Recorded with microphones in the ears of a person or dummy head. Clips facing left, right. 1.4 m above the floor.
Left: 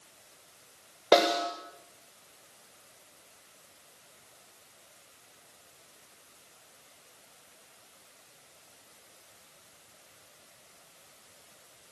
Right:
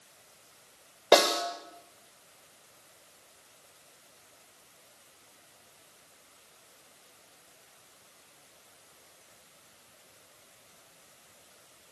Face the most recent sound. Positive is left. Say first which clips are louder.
# even
turn(degrees=-5)  # may be behind; listen again after turning